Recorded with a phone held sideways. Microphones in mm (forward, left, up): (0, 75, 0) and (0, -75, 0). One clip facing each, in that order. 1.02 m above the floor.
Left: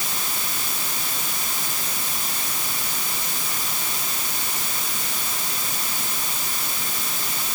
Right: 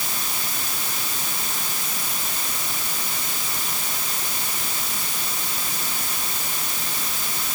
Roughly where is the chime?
I don't hear a chime.